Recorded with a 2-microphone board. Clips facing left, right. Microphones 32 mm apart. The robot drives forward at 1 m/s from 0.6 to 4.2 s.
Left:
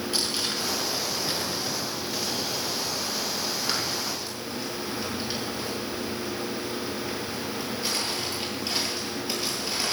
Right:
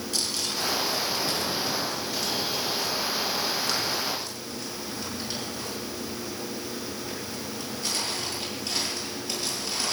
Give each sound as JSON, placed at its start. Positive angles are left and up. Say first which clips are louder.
{"t": 0.1, "sound": "crumpling", "louder": "even", "side_deg": 25, "distance_m": 5.0}